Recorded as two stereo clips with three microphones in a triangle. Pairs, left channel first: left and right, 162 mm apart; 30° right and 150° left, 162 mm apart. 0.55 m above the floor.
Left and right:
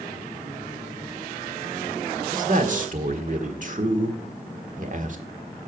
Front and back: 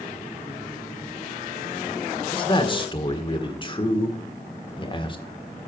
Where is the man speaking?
80° right, 1.5 m.